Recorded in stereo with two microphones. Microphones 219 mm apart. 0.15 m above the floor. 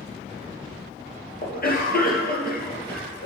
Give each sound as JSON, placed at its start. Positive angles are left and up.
{"t": 1.4, "sound": "a cough", "side_deg": 45, "distance_m": 2.5}